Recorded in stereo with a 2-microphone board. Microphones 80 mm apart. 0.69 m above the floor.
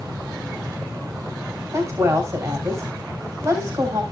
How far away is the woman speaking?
About 3.5 m.